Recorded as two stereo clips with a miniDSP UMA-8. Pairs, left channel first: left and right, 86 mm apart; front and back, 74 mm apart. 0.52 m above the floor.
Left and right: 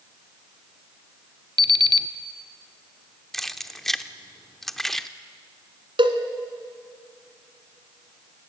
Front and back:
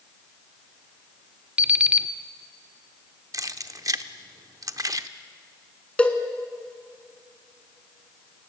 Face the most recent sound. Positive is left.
turn(degrees=-75)